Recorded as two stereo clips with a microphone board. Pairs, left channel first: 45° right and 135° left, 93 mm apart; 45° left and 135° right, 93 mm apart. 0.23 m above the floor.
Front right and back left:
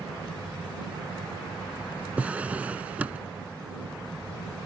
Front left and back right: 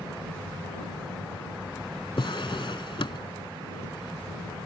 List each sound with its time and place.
2.2 s a drawer: 60° left